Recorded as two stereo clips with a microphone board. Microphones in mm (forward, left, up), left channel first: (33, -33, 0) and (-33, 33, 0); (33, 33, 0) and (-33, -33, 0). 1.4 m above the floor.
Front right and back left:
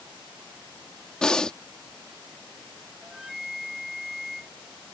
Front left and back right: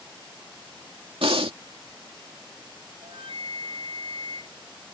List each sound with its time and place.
1.2 s breathing: 125° right
3.0 s a flute: 140° right